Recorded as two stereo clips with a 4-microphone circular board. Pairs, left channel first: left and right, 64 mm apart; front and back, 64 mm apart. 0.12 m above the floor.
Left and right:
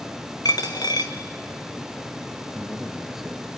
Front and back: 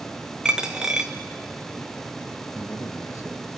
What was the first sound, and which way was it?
A dropped coin, 100° left.